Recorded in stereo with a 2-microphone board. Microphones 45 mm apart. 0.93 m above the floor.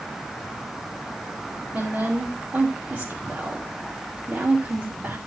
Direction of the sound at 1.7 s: 50° right (ahead or behind).